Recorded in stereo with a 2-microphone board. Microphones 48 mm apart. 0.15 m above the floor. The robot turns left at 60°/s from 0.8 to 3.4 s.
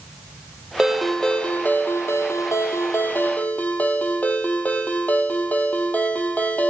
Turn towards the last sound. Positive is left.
turn(degrees=35)